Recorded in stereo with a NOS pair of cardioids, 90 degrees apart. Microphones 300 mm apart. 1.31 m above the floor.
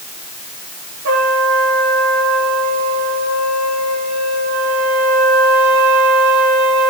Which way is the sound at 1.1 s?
60° right.